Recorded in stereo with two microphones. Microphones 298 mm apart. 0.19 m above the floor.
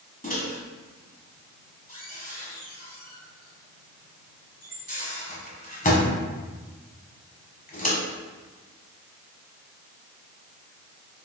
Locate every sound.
0.2 s a microwave: 30° left (ahead or behind), 1.0 m